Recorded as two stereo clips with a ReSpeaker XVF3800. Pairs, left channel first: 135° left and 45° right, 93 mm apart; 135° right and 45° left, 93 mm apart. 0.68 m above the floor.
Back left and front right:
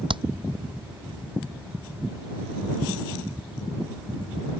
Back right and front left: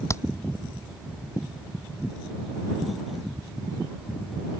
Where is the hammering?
75° right.